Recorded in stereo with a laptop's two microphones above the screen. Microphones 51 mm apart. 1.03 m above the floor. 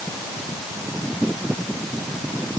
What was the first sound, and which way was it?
Only background noise.